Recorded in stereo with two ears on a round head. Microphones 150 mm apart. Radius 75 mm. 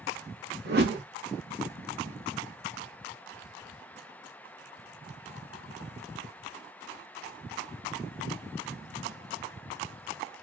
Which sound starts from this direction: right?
A whoosh, at 0.7 s.